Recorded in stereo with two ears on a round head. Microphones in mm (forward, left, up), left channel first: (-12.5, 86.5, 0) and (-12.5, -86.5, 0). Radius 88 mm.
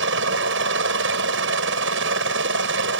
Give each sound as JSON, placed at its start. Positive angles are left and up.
{"t": 0.0, "sound": "a helicopter", "side_deg": -70}